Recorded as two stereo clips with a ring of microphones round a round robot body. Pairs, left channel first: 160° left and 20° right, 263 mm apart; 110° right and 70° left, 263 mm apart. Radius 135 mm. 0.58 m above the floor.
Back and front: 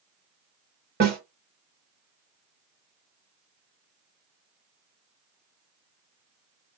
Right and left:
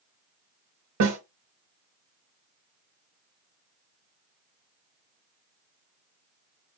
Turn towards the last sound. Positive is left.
turn(degrees=35)